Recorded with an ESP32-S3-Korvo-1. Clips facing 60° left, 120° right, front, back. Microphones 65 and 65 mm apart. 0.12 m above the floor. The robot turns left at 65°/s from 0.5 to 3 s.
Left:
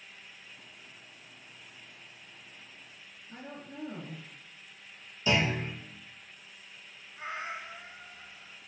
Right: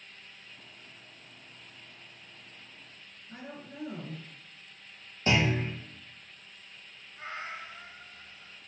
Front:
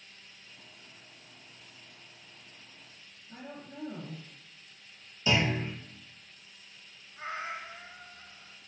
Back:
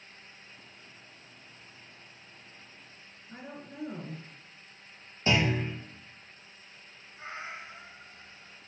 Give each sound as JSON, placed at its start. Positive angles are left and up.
{"t": 3.3, "sound": "a woman speaking", "azimuth_deg": 170, "distance_m": 1.4}
{"t": 5.3, "sound": "a clunk", "azimuth_deg": -145, "distance_m": 1.5}
{"t": 7.2, "sound": "a cat meowing", "azimuth_deg": 5, "distance_m": 0.6}